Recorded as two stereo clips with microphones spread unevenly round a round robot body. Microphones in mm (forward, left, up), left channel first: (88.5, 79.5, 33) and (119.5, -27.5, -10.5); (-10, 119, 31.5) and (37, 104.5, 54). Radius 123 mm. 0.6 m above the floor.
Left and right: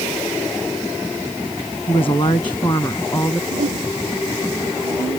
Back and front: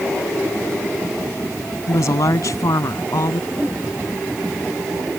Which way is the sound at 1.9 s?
Straight behind.